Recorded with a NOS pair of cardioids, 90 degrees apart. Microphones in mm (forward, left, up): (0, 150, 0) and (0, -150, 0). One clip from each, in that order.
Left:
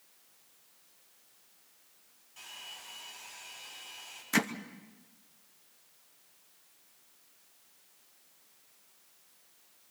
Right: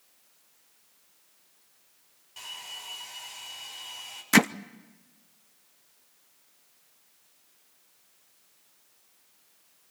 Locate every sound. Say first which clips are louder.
2.4 s a hair dryer: right 6 dB; 50° right, 5.5 m
4.3 s hammering: right 9 dB; 45° right, 0.6 m